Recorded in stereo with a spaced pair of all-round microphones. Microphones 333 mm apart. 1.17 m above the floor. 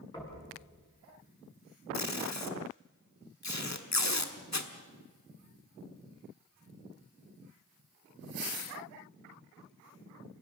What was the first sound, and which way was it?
Knocking, 10° left (ahead or behind).